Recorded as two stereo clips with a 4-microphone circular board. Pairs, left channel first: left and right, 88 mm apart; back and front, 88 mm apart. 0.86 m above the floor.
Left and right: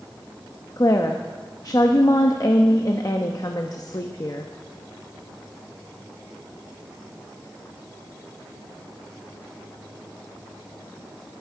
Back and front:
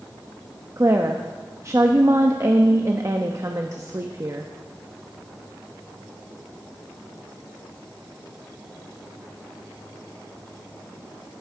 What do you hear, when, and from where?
0.8 s a woman speaking: 50° left, 0.8 m